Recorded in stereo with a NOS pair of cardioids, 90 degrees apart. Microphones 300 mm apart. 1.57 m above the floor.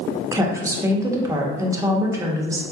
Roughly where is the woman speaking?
Ahead.